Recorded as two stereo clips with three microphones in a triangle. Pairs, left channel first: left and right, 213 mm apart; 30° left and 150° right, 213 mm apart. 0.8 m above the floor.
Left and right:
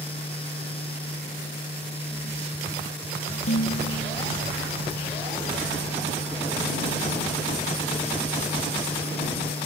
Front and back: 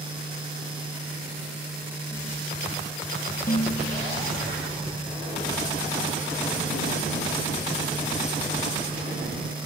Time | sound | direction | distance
3.5 | dishes clattering | 80° left | ?